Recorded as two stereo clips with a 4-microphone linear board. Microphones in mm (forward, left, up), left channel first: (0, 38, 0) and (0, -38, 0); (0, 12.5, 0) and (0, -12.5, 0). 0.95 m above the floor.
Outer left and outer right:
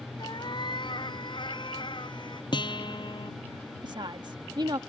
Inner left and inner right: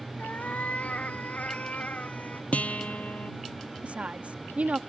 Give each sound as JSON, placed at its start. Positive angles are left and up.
{"t": 0.2, "sound": "a cat meowing", "side_deg": 85}
{"t": 2.5, "sound": "a guitar", "side_deg": 80}
{"t": 3.8, "sound": "a woman speaking", "side_deg": -75}